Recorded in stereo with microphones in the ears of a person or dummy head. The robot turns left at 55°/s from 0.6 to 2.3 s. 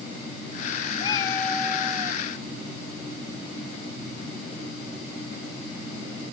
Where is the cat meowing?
35° left; by 2.2 s 30° right.